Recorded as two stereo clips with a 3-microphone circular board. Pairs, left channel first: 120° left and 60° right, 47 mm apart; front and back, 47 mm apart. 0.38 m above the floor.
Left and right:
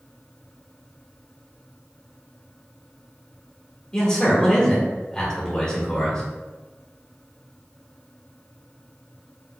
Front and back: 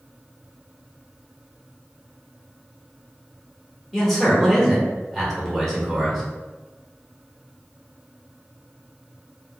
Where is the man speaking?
80° left, 1.2 m.